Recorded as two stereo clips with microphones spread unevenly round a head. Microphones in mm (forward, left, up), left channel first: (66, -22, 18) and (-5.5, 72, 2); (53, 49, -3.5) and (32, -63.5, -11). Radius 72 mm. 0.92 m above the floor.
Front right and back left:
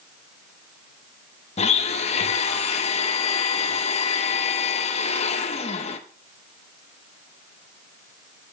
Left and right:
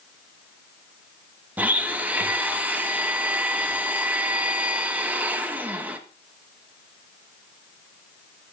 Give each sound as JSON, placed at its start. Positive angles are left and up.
{"t": 1.6, "sound": "a blender", "azimuth_deg": -30, "distance_m": 1.0}